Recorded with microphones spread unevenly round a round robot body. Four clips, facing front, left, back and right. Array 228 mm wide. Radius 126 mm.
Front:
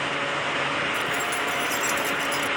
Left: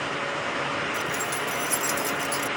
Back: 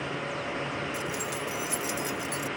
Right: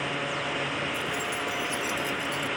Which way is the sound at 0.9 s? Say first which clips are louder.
Left 2 dB, front 6 dB; 140° left.